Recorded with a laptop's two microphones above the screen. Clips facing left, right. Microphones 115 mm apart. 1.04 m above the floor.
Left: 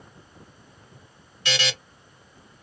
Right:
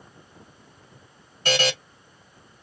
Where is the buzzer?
45° right (ahead or behind), 0.7 m.